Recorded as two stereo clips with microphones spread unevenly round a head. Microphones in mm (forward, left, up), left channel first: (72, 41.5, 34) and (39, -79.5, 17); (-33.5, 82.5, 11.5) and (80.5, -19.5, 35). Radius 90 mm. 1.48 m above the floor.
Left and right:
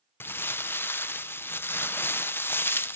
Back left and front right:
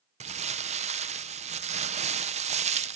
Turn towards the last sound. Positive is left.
turn(degrees=5)